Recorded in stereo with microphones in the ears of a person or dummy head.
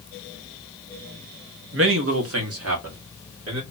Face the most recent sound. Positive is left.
turn(degrees=-70)  # may be behind; listen again after turning